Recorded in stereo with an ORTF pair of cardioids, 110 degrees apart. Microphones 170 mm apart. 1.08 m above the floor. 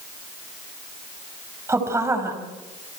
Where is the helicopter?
No helicopter in this recording.